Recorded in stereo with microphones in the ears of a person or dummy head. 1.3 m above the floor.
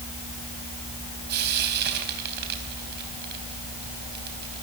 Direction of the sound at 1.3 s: 55° right (ahead or behind).